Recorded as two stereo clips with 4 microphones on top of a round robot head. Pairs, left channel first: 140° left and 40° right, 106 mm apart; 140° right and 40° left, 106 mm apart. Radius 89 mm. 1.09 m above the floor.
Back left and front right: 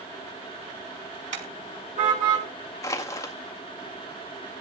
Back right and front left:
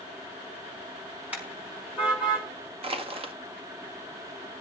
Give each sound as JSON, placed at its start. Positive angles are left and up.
{"t": 1.3, "sound": "a car horn", "azimuth_deg": -40, "distance_m": 5.5}
{"t": 2.8, "sound": "crushing", "azimuth_deg": 75, "distance_m": 1.9}